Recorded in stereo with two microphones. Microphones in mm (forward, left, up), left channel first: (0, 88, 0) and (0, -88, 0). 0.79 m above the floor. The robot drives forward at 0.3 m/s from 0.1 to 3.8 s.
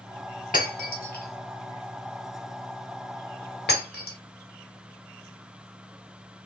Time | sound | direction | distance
0.5 | breaking glass | 55° left (ahead or behind) | 1.5 m